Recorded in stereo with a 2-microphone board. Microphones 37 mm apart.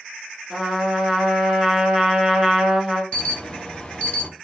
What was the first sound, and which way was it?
A trumpet, 10° right (ahead or behind).